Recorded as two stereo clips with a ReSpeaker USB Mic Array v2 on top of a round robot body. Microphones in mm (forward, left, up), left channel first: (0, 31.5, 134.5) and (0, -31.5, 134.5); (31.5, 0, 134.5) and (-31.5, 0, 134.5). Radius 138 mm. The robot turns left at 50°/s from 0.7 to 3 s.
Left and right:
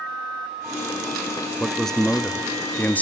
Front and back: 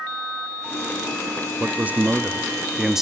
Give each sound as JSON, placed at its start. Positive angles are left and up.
{"t": 1.6, "sound": "a man speaking", "azimuth_deg": 175, "distance_m": 0.8}